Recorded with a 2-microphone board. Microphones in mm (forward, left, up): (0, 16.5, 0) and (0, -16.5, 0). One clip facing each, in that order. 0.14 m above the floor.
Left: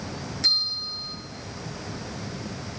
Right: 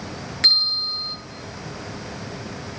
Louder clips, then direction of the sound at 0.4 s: Right 6 dB; 50° right (ahead or behind).